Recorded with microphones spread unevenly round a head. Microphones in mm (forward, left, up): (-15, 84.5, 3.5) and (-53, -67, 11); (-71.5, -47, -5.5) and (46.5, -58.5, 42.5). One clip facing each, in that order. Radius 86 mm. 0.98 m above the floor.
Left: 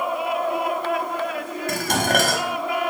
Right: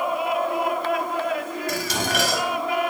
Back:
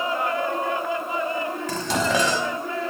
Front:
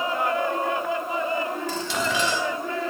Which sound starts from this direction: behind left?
Dishes clattering, at 1.7 s.